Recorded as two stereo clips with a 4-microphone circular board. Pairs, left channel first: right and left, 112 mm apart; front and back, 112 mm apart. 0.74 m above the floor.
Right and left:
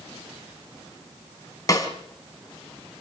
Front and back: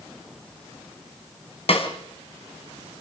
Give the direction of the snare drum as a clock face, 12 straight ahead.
1 o'clock.